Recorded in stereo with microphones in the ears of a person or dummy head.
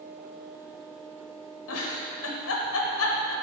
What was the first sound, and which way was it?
A giggle, 80° left.